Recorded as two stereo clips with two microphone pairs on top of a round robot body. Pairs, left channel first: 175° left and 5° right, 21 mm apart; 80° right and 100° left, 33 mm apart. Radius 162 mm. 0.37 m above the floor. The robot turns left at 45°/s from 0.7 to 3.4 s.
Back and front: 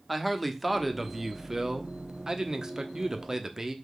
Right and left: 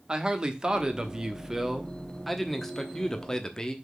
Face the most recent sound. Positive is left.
turn(degrees=-40)